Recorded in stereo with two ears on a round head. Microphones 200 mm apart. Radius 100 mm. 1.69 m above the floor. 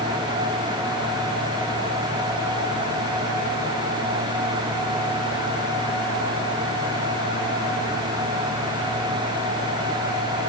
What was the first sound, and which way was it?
Only background noise.